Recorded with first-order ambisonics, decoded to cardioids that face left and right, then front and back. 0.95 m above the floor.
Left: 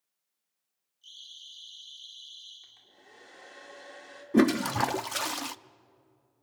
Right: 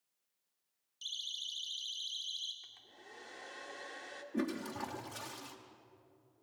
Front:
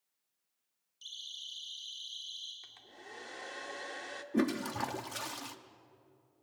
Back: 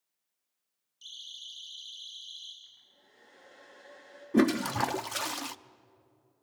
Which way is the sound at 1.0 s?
90° right.